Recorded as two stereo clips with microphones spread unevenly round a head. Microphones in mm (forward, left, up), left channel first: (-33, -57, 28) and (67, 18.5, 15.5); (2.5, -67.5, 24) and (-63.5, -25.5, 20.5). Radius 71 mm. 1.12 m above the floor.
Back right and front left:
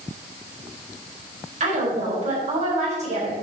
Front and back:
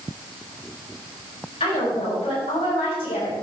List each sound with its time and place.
1.6 s a woman speaking: 5° left, 5 m